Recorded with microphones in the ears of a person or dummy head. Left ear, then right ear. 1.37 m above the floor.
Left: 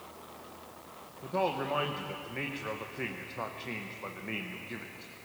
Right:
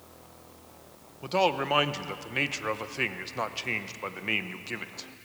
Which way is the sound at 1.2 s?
75° right (ahead or behind).